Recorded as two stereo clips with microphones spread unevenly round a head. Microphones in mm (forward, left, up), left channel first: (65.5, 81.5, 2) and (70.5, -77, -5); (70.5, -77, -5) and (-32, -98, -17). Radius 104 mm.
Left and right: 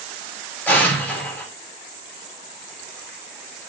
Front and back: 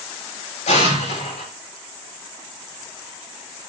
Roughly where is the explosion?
Ahead.